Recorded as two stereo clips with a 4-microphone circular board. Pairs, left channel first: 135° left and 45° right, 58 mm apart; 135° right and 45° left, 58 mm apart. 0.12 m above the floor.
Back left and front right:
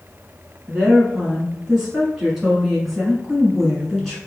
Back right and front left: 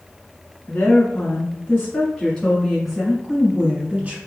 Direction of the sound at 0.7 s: 120° right.